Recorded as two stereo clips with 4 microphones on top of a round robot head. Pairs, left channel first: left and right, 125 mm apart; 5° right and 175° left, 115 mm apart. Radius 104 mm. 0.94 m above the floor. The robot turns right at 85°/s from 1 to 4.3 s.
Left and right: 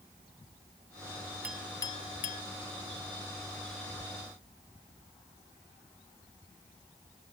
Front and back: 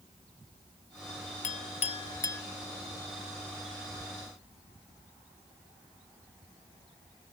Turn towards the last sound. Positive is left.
turn(degrees=-125)